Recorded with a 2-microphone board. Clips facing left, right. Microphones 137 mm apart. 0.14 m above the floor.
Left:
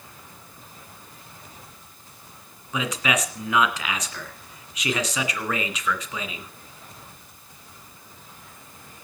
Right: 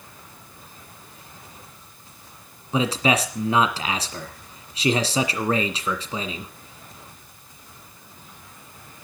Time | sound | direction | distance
2.7 | a man speaking | 30° right (ahead or behind) | 1.8 m